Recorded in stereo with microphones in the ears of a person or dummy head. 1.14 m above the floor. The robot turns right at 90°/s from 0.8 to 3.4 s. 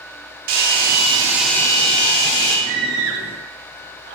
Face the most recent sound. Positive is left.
turn(degrees=-70)  # may be behind; listen again after turning